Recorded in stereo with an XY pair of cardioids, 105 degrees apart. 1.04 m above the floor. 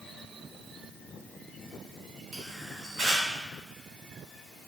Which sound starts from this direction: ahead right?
A camera shutter, at 2.3 s.